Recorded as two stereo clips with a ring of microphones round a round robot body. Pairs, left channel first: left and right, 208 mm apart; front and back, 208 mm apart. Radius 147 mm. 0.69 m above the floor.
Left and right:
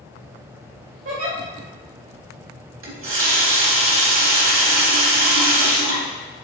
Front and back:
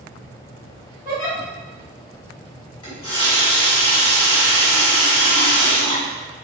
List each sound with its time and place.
1.1 s a giggle: 105° right, 1.7 m
2.8 s a running tap: 75° right, 1.0 m